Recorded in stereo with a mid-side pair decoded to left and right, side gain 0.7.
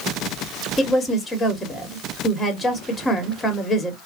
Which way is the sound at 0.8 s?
20° left.